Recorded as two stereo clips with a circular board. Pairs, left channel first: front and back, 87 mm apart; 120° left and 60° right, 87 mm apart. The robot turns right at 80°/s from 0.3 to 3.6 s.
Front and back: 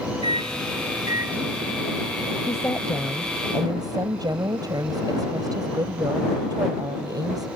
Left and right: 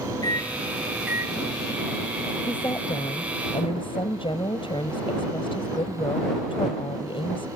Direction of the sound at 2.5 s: 45° left.